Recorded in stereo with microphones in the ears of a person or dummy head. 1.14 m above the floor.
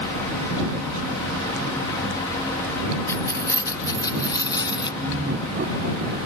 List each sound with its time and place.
3.1 s keys jangling: 15° left (ahead or behind); by 4.9 s 25° left (ahead or behind)
5.0 s laughter: 50° right (ahead or behind)